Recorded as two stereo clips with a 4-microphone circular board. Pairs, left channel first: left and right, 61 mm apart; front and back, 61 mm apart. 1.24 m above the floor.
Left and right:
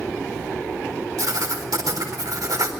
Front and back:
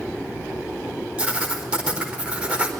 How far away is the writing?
About 4 m.